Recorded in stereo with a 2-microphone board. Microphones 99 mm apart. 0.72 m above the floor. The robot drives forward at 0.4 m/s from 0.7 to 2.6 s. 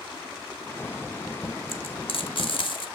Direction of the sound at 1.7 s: 65° left (ahead or behind).